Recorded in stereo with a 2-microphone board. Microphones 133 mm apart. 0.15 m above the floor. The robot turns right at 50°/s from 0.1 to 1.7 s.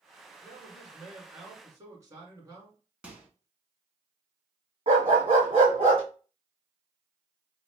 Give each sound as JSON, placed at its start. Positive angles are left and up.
{"t": 0.4, "sound": "a man speaking", "azimuth_deg": 155, "distance_m": 1.8}
{"t": 3.0, "sound": "a microwave", "side_deg": -10, "distance_m": 0.9}
{"t": 4.9, "sound": "a dog barking", "side_deg": -40, "distance_m": 2.5}